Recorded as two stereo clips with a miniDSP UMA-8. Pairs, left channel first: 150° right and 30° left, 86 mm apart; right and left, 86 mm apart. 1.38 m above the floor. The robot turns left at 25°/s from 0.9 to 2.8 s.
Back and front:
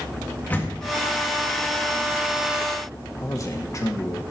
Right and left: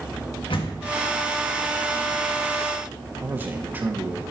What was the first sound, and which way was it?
A door slam, 80° right.